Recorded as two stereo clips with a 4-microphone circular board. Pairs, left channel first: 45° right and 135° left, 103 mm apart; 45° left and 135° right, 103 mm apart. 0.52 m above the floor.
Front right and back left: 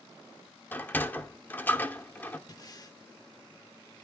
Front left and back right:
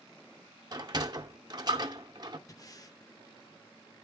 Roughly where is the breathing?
Ahead.